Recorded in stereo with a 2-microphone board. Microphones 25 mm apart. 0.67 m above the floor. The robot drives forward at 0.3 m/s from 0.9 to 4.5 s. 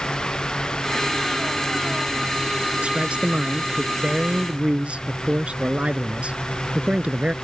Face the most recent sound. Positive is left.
turn(degrees=-50)  # may be behind; listen again after turning